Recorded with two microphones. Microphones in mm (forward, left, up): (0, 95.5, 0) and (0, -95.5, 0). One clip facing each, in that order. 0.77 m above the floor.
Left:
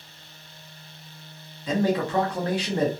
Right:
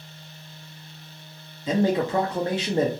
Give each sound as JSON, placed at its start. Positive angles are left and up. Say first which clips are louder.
{"t": 1.7, "sound": "a man speaking", "louder": "right 2 dB", "side_deg": -25, "distance_m": 0.6}